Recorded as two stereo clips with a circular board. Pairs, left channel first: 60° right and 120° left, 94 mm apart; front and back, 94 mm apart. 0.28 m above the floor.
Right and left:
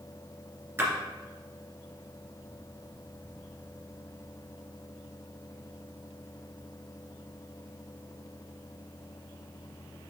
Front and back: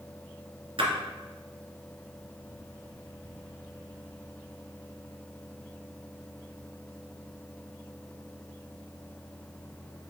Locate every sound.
0.8 s a splash: straight behind, 2 m